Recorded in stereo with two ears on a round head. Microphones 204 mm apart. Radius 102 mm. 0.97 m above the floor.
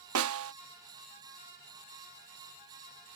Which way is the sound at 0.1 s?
65° right (ahead or behind).